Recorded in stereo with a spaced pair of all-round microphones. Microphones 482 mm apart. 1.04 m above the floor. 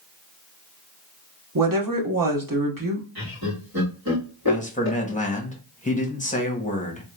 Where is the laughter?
45° right (ahead or behind), 2 m.